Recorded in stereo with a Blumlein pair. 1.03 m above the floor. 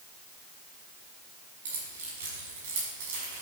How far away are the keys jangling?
About 6 m.